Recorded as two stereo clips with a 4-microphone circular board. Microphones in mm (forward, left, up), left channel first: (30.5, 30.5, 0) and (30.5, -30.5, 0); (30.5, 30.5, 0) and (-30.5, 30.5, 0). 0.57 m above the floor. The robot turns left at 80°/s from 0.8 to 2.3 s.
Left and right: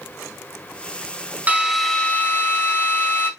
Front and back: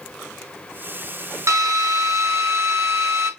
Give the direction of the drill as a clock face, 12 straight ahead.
5 o'clock.